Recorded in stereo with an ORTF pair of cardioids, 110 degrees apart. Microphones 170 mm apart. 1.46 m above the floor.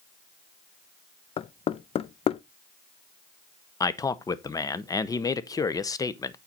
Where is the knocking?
35° left, 0.5 m.